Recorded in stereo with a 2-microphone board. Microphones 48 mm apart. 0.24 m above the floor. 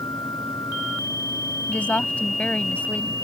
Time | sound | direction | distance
1.7 | a woman speaking | 30° left (ahead or behind) | ?